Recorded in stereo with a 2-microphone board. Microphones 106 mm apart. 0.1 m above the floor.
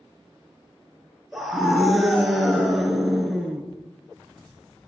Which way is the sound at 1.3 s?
Centre (ahead or behind).